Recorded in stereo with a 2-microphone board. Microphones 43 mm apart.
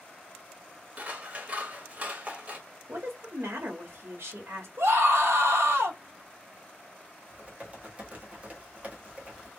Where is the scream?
85° right, 1.2 m.